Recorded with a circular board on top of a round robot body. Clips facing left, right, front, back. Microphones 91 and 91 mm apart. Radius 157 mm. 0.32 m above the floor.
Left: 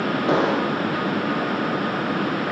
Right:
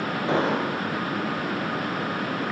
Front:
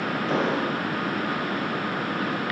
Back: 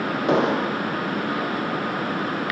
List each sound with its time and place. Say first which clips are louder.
0.3 s an explosion: left 3 dB, back 5 dB; 160° left, 4.5 m